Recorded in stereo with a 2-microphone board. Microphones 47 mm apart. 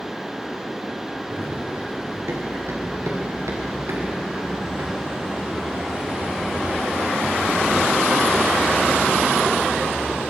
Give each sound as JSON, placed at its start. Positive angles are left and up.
{"t": 1.3, "sound": "running footsteps", "side_deg": -55, "distance_m": 5.0}